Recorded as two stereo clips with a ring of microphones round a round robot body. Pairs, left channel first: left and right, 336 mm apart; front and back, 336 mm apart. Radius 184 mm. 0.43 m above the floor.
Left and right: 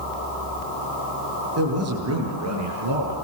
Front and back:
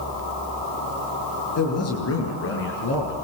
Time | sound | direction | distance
1.6 | a man speaking | 45° right | 8 m